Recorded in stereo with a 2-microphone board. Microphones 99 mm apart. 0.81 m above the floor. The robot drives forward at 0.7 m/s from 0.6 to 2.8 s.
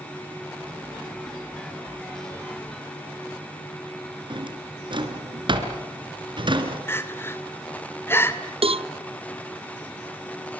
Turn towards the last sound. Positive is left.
turn(degrees=-70)  # may be behind; listen again after turning